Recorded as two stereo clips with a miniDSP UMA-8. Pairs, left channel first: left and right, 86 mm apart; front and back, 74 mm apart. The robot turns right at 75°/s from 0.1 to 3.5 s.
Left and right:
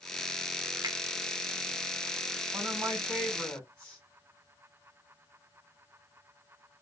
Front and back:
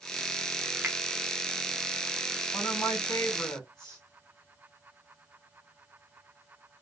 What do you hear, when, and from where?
0.8 s a finger snap: 120° right, 0.8 m; by 1.0 s 110° right, 0.8 m
2.5 s a woman speaking: 55° right, 2.5 m; by 4.0 s 15° left, 2.5 m